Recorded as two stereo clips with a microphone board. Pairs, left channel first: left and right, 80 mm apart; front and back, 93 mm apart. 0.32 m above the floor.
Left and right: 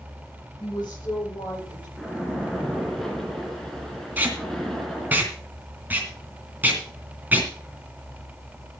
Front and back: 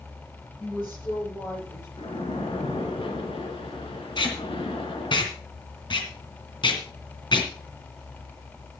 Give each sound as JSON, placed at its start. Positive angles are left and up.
{"t": 0.6, "sound": "a woman speaking", "azimuth_deg": 65, "distance_m": 7.5}
{"t": 2.0, "sound": "a splash", "azimuth_deg": 5, "distance_m": 3.0}
{"t": 4.2, "sound": "tape being pulled", "azimuth_deg": -25, "distance_m": 2.5}